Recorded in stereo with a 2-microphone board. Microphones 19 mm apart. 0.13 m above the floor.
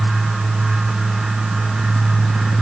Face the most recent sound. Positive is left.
No sound to turn to.